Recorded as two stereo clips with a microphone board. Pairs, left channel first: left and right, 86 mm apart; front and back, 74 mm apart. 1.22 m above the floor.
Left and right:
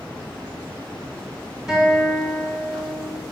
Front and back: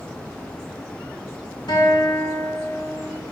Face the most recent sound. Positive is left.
turn(degrees=-5)